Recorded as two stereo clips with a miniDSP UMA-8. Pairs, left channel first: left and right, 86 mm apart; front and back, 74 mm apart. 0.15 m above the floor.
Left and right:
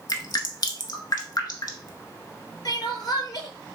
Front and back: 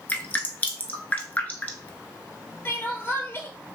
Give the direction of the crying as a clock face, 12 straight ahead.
10 o'clock.